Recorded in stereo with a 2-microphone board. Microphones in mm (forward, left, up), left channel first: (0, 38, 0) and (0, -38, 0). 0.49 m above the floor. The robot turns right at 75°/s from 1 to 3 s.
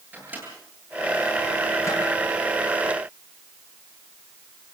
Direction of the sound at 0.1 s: 20° right (ahead or behind).